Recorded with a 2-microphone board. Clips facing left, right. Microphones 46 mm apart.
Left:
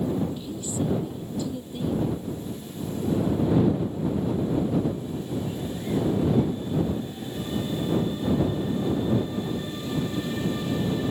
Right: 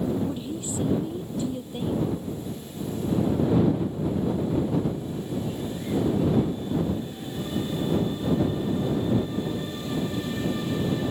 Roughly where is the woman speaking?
Right.